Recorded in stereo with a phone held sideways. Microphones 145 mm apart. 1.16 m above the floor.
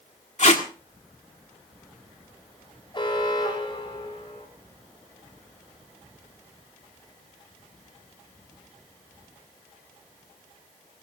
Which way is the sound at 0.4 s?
55° left (ahead or behind).